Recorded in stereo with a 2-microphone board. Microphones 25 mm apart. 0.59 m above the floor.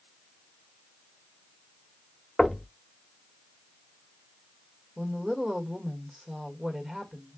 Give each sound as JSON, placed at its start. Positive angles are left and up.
{"t": 2.4, "sound": "knocking", "side_deg": 15, "distance_m": 0.9}
{"t": 5.0, "sound": "a woman speaking", "side_deg": -20, "distance_m": 1.8}